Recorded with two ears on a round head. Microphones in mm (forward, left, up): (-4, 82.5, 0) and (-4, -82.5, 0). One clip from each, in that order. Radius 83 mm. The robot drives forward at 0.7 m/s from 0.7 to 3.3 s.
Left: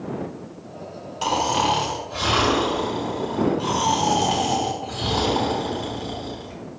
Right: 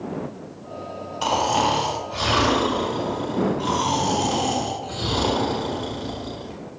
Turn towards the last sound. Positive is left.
turn(degrees=10)  # may be behind; listen again after turning